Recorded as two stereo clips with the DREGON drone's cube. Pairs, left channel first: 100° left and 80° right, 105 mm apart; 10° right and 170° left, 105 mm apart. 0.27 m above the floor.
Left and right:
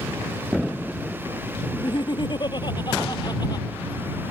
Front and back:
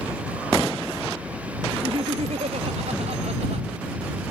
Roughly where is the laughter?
Behind left.